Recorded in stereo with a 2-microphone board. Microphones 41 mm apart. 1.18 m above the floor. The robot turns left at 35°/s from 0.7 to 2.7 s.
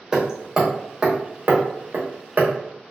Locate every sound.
0.1 s hammering: 20° right (ahead or behind), 0.8 m; by 2.5 s 50° right (ahead or behind), 0.8 m